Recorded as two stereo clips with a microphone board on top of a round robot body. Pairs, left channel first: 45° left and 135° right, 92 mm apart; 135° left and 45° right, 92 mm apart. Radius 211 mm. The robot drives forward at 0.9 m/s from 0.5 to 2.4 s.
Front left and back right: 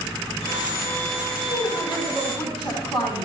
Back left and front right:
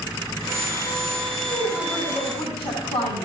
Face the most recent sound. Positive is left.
turn(degrees=135)